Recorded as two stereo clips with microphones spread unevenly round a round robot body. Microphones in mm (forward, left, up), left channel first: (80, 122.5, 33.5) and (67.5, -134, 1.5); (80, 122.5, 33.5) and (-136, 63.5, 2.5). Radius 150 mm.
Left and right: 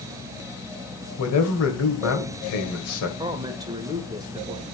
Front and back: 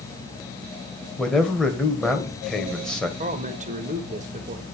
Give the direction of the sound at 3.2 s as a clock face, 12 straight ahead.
5 o'clock.